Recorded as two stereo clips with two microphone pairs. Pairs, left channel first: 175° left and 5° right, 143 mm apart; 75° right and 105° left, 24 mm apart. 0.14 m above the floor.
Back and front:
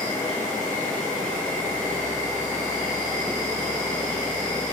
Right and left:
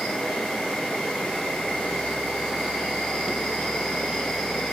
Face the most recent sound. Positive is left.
turn(degrees=-100)